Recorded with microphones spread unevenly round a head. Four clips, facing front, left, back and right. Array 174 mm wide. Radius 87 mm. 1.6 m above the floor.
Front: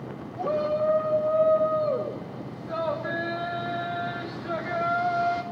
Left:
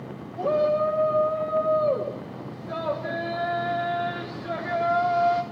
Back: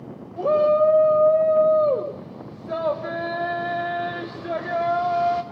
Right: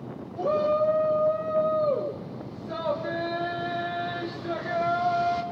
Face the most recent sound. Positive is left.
turn(degrees=175)